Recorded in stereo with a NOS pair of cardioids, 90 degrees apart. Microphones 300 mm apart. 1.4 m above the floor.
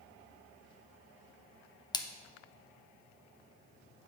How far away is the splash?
About 0.6 m.